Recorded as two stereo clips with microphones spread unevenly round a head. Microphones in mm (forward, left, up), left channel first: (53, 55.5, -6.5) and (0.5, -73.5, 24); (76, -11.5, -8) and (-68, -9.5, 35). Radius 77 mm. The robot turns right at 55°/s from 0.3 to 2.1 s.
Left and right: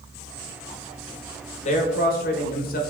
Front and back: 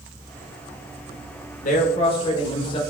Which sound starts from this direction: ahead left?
A man speaking, at 1.6 s.